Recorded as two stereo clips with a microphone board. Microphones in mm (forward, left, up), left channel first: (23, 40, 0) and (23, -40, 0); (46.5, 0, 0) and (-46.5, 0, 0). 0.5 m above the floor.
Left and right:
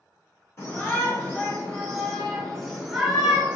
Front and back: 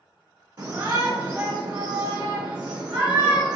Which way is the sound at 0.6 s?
125° left.